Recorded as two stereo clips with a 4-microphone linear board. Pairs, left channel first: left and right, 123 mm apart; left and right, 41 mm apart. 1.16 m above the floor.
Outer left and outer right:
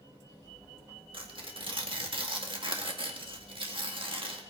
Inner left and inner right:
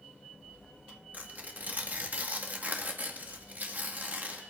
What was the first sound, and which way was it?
Tearing paper, 45° right (ahead or behind).